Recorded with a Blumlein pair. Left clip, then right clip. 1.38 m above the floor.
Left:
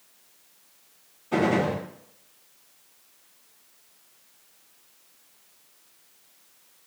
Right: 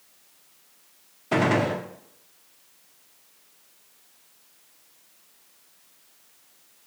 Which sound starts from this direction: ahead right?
A gunshot, at 1.3 s.